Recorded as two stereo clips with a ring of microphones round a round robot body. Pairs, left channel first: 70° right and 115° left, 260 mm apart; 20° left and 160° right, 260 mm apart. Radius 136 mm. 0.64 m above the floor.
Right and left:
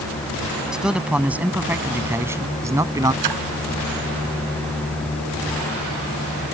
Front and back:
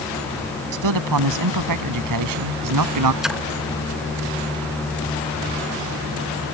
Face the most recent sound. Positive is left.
turn(degrees=115)